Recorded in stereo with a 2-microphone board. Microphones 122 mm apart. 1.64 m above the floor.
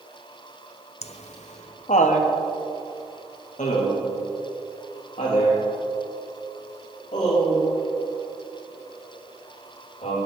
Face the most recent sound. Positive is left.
turn(degrees=90)